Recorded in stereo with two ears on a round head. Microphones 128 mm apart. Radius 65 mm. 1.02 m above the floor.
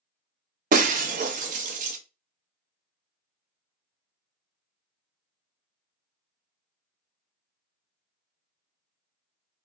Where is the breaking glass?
60° right (ahead or behind), 0.6 m.